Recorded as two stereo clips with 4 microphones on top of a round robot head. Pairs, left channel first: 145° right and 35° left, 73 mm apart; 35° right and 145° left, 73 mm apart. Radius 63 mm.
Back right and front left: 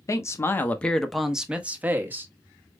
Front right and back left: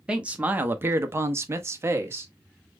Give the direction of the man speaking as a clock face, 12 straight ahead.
5 o'clock.